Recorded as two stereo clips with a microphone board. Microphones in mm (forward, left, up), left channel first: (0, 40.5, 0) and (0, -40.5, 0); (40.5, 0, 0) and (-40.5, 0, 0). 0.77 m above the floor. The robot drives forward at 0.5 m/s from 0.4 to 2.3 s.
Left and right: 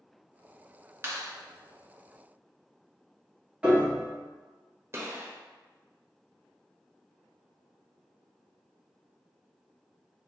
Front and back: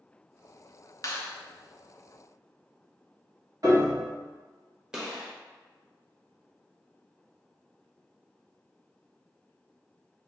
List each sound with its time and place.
1.0 s a clap: 40° right, 0.7 m; by 1.3 s 50° right, 0.6 m
3.6 s a piano: 160° right, 1.1 m
4.9 s a gunshot: 105° right, 1.0 m